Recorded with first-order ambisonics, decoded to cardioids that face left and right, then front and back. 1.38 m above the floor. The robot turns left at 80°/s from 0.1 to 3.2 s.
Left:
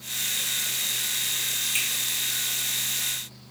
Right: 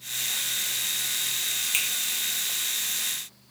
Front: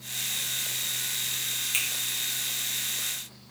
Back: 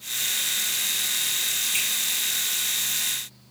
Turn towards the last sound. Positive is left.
turn(degrees=180)